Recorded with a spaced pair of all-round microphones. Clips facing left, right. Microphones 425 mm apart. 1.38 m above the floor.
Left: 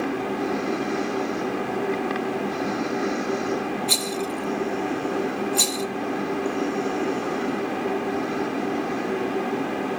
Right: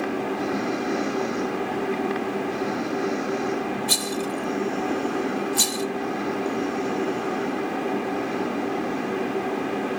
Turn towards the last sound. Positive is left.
turn(degrees=-30)  # may be behind; listen again after turning